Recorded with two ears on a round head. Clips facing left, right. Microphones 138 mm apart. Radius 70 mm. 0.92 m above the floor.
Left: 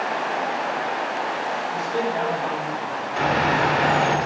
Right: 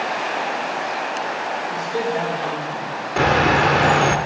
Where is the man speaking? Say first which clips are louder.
Right 2 dB; 15° right (ahead or behind), 3 m; by 3.0 s 30° right (ahead or behind), 3 m.